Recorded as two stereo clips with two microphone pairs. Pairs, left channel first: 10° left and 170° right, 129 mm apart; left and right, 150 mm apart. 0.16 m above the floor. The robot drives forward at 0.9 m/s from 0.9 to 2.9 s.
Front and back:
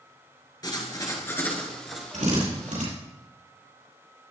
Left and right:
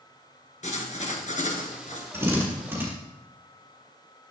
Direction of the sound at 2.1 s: 165° right.